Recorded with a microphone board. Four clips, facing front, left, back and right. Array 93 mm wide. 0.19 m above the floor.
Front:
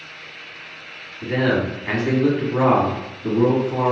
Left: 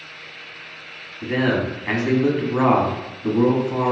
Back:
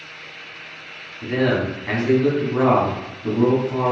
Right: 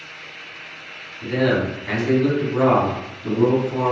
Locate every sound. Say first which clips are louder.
1.2 s a man speaking: right 1 dB, even; 75° left, 1.2 m